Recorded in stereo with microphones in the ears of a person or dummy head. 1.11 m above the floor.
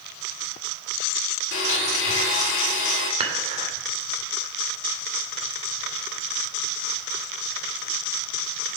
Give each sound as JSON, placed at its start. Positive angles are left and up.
{"t": 1.5, "sound": "a blender", "side_deg": 75, "distance_m": 2.5}
{"t": 3.2, "sound": "dishes clattering", "side_deg": -35, "distance_m": 2.0}